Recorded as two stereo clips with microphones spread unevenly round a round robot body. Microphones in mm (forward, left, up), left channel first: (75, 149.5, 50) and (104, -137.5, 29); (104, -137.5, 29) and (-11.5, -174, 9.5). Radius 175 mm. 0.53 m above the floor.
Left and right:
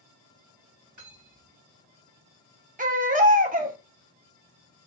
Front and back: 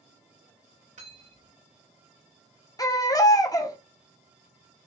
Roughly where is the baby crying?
Ahead right.